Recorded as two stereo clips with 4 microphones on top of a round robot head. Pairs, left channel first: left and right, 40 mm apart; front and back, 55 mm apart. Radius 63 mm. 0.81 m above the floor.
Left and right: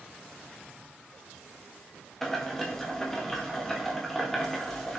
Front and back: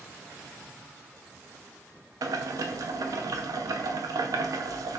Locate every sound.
2.2 s boiling: 175° left, 0.6 m